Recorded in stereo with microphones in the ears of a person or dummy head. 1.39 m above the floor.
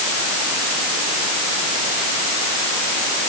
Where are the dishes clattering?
I don't hear dishes clattering.